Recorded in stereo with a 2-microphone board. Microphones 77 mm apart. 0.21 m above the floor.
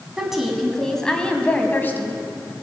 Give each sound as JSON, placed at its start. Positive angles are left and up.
{"t": 0.2, "sound": "a woman speaking", "side_deg": -10, "distance_m": 1.7}